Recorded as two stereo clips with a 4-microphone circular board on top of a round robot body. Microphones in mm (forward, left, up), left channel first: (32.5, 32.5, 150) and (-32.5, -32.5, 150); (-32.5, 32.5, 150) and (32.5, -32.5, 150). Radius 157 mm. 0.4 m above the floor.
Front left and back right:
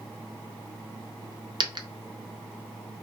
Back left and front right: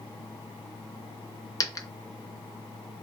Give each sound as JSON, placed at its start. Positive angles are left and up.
{"t": 1.6, "sound": "a dropped coin", "azimuth_deg": -170, "distance_m": 0.5}